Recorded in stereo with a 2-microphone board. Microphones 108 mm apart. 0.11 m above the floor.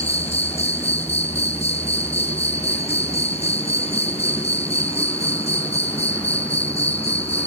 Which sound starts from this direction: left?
An insect, at 0.0 s.